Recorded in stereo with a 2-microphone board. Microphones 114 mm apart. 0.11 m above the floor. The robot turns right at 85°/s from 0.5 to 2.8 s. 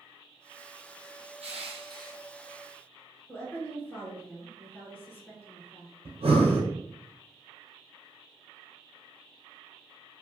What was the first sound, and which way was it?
Crushing, 95° right.